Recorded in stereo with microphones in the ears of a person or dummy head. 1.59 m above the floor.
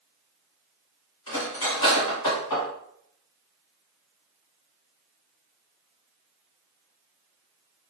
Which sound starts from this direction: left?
Cutlery clinking, at 1.3 s.